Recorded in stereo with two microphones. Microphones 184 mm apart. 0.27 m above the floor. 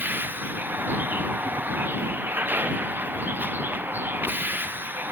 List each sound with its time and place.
0.0 s a vehicle: 10° right (ahead or behind)